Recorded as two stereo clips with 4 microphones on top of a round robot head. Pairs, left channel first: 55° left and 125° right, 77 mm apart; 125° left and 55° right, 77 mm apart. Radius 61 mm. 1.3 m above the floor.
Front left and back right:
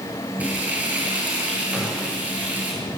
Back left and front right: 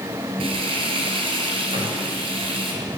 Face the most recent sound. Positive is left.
turn(degrees=-40)